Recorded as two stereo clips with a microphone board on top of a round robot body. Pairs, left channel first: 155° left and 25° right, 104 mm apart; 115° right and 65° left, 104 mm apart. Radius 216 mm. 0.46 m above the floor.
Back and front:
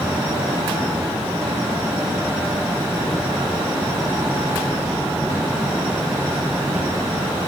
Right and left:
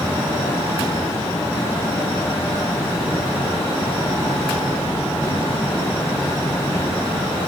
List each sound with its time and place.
Only background noise.